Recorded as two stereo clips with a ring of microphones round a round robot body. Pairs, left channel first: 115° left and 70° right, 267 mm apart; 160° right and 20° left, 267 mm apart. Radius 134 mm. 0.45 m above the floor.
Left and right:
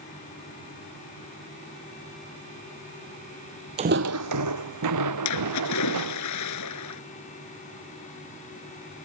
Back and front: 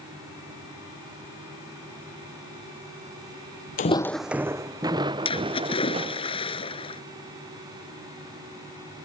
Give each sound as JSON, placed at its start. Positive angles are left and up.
{"t": 3.8, "sound": "footsteps", "azimuth_deg": -125}
{"t": 5.2, "sound": "a splash", "azimuth_deg": 130}